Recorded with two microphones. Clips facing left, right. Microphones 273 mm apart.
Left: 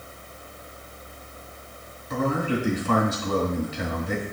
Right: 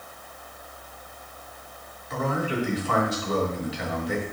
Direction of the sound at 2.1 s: 55° left (ahead or behind).